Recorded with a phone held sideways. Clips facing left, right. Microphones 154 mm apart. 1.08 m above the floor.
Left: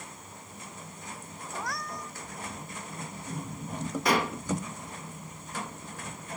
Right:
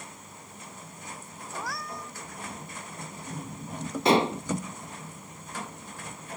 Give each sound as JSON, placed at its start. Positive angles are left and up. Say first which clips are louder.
{"t": 1.5, "sound": "a cat meowing", "louder": "even", "side_deg": 0}
{"t": 4.0, "sound": "dishes clattering", "louder": "right 6 dB", "side_deg": -25}